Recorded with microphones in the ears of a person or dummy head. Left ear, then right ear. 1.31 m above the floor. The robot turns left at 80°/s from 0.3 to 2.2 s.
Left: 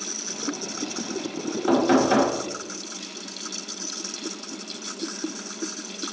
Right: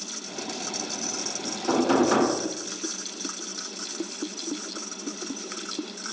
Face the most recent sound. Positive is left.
turn(degrees=0)